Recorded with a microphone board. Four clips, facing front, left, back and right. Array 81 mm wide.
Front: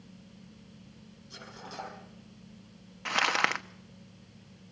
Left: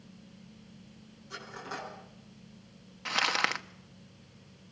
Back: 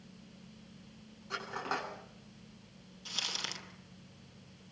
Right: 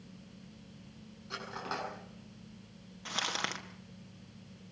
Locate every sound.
1.3 s cutlery clinking: 155° right, 9 m
3.0 s crumpling: 20° left, 1.0 m